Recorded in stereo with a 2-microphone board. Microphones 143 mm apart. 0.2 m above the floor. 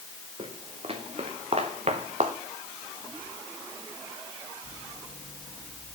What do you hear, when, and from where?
0.4 s footsteps: 45° right (ahead or behind), 2.5 m; by 2.4 s 60° right (ahead or behind), 1.3 m